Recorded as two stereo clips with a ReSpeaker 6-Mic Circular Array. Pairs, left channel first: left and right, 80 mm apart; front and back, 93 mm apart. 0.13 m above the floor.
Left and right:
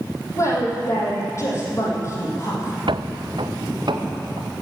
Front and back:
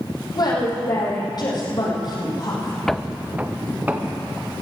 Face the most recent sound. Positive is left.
turn(degrees=-115)